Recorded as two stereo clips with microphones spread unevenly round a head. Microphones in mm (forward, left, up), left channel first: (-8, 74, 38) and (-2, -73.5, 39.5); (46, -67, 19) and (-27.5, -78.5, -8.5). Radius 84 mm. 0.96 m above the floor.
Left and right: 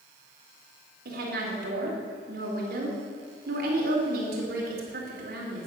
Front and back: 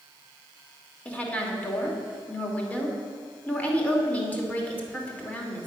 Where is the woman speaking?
65° right, 2.5 m.